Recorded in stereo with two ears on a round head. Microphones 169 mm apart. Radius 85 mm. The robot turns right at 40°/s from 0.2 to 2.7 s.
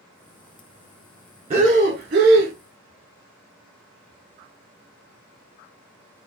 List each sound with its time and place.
1.5 s breathing: 140° right, 0.9 m; by 2.5 s 95° right, 0.9 m